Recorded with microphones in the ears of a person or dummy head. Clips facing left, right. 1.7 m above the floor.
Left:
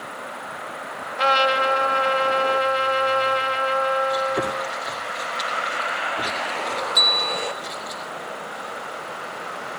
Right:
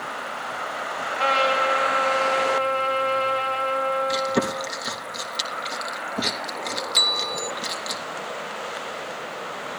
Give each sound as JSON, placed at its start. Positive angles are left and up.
{"t": 1.2, "sound": "a trumpet", "side_deg": 20, "distance_m": 4.5}
{"t": 4.1, "sound": "chewing", "side_deg": -60, "distance_m": 3.0}
{"t": 7.0, "sound": "a bell", "side_deg": -15, "distance_m": 2.0}